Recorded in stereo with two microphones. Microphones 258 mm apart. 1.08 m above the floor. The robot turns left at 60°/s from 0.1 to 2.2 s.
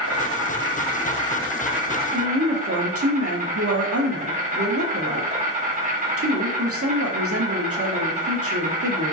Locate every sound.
0.0 s an insect: 90° left, 0.9 m; by 9.1 s 35° right, 0.9 m
2.1 s a woman speaking: 65° right (ahead or behind), 0.6 m; by 9.1 s 60° right (ahead or behind), 0.6 m